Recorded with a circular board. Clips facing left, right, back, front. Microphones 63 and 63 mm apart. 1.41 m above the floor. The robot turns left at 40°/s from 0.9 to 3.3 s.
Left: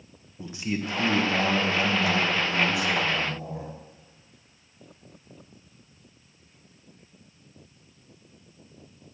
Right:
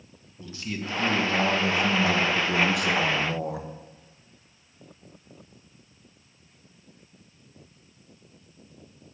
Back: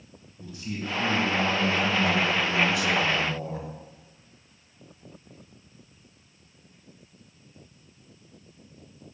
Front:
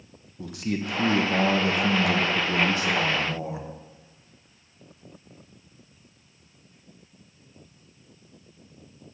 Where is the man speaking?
20° left, 1.4 m; by 3.7 s 75° right, 1.4 m.